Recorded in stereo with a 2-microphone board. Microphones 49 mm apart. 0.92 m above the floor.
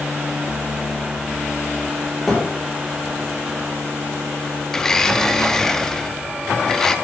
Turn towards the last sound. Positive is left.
turn(degrees=10)  # may be behind; listen again after turning